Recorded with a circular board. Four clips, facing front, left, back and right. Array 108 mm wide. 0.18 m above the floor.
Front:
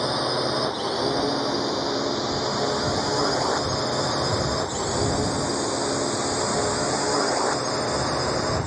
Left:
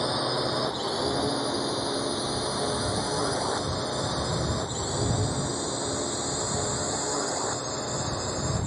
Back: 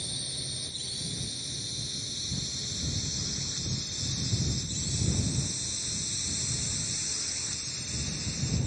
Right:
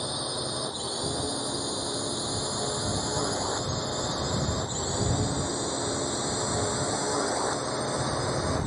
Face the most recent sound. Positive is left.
turn(degrees=-10)